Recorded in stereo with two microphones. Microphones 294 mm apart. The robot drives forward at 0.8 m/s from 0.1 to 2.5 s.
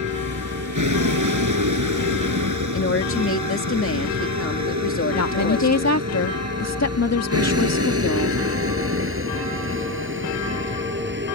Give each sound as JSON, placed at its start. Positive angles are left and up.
{"t": 0.0, "sound": "a vehicle", "side_deg": -85}
{"t": 2.7, "sound": "a woman speaking", "side_deg": 45}
{"t": 5.1, "sound": "a woman speaking", "side_deg": 60}